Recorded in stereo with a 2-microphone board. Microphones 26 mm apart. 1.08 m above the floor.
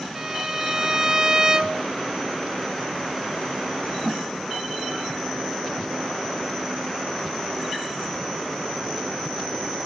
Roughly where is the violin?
Centre.